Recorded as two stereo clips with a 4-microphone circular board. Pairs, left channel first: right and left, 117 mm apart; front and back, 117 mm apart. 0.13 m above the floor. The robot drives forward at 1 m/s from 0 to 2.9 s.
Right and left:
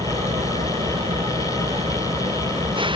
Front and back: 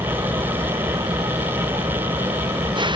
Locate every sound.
0.0 s an engine running: 125° left; by 3.0 s 135° left